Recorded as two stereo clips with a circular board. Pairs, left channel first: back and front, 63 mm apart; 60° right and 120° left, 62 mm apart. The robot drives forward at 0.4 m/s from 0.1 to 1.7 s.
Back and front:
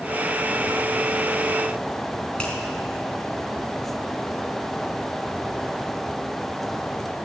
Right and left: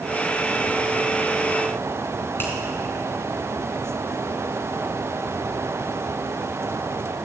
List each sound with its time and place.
2.4 s a finger snap: 110° right, 3.5 m